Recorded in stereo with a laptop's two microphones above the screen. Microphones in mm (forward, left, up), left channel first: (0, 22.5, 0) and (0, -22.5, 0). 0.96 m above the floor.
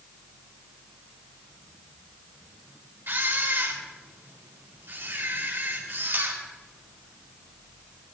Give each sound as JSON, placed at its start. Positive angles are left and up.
{"t": 3.1, "sound": "a camera shutter", "side_deg": -55, "distance_m": 3.5}